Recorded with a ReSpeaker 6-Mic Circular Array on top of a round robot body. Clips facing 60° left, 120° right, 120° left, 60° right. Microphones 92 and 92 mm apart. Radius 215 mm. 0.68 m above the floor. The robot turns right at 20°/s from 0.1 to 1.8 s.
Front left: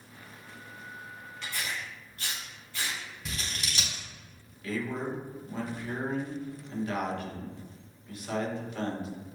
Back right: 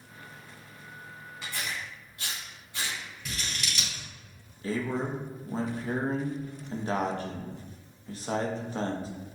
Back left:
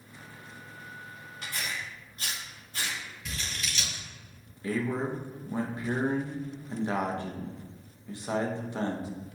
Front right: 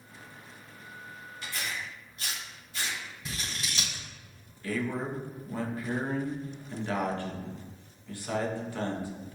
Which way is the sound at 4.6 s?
175° right.